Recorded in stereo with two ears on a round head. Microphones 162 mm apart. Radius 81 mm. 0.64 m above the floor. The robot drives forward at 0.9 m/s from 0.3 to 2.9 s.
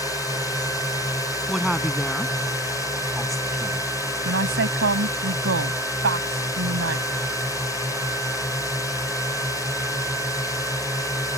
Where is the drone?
20° left (ahead or behind).